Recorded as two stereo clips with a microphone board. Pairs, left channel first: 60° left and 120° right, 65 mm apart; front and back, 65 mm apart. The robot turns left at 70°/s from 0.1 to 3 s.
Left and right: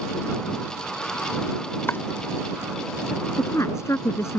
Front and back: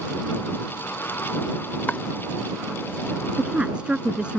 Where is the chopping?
45° left; by 2.0 s 35° left.